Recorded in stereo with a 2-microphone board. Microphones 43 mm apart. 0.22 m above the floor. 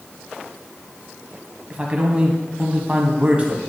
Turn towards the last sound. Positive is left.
turn(degrees=-35)  # may be behind; listen again after turning